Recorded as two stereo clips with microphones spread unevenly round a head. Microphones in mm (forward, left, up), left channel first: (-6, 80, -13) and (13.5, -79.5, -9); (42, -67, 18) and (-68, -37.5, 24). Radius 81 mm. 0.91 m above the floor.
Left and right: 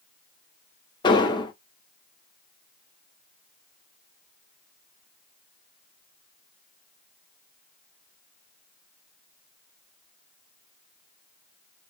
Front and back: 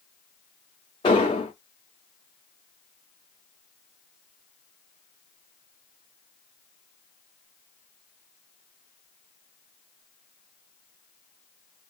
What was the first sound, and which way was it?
An explosion, 40° left.